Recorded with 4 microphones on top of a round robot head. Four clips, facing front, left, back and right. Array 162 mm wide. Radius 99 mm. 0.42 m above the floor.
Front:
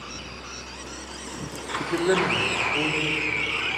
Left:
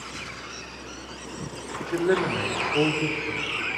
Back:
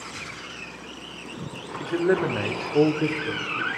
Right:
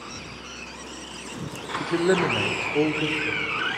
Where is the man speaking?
50° right, 0.7 m; by 3.7 s 175° right, 1.5 m.